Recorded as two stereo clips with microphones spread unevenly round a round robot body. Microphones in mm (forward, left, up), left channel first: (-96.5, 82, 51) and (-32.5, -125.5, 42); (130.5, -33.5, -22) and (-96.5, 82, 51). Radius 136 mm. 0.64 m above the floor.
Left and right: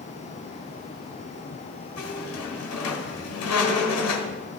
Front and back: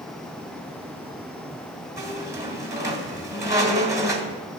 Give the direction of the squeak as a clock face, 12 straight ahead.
10 o'clock.